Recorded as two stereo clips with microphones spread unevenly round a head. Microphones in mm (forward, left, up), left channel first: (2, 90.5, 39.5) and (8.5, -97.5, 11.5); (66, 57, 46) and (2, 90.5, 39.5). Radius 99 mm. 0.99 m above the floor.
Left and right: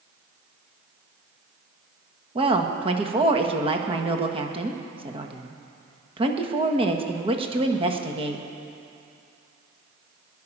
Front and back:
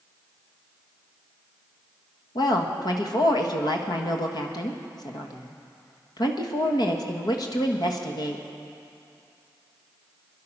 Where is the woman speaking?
35° right, 1.5 m.